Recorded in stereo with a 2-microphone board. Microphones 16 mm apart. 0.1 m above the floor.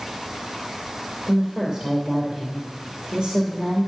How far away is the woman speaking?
About 2 m.